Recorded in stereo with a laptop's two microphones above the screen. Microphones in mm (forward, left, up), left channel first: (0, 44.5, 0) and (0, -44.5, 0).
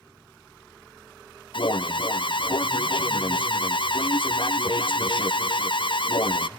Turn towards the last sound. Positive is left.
turn(degrees=65)  # may be behind; listen again after turning